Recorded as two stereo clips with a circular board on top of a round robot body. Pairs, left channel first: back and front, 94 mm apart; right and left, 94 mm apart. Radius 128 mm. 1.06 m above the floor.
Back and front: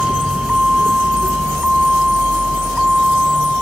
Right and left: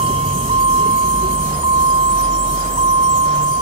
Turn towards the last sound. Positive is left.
turn(degrees=85)